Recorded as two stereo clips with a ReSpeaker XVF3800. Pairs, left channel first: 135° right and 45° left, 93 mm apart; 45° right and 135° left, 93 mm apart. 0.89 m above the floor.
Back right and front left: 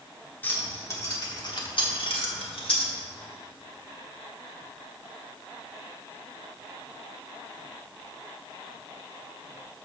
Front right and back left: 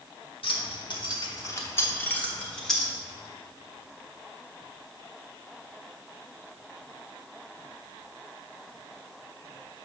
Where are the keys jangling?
65° right, 1.4 m; by 2.9 s 135° right, 1.7 m.